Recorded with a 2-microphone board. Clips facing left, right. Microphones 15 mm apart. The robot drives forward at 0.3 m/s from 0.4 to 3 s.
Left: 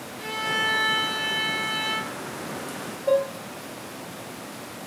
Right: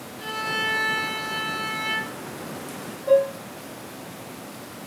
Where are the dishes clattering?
35° left (ahead or behind), 0.8 m.